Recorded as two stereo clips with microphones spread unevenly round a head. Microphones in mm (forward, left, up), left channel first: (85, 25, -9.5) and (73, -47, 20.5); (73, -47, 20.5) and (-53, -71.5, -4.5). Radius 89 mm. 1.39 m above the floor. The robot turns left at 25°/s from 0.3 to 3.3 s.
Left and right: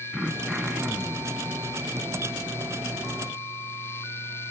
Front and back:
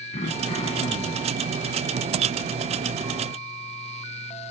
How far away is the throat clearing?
About 1.1 m.